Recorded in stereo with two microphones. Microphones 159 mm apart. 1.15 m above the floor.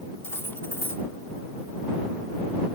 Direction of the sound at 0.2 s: 15° left (ahead or behind).